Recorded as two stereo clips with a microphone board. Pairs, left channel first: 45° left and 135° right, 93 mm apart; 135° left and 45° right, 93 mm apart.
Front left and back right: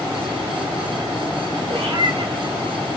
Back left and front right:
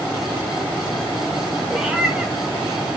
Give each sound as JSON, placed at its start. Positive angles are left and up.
{"t": 1.7, "sound": "a cat meowing", "azimuth_deg": -125, "distance_m": 2.5}